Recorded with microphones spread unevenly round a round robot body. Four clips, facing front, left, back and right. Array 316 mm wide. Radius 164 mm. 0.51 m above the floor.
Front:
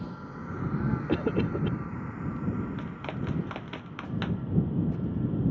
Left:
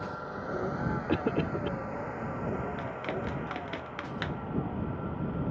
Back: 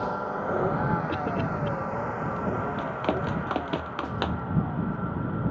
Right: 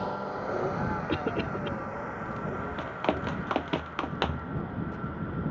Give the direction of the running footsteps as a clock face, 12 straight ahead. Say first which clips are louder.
Right 4 dB, back 8 dB; 5 o'clock.